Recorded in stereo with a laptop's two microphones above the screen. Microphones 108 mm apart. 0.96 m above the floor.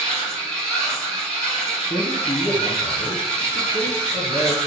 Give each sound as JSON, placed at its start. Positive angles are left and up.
{"t": 0.0, "sound": "a machine running", "side_deg": 5, "distance_m": 1.5}
{"t": 1.9, "sound": "a man speaking", "side_deg": 45, "distance_m": 0.8}